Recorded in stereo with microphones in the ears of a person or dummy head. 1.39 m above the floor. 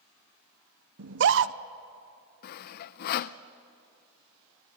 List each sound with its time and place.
1.0 s a scream: 65° right (ahead or behind), 0.8 m
2.4 s sawing: 50° left (ahead or behind), 0.6 m